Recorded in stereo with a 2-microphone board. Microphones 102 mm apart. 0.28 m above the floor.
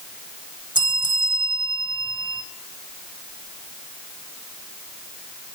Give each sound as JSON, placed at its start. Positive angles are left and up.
{"t": 0.8, "sound": "a bell", "side_deg": -50, "distance_m": 0.5}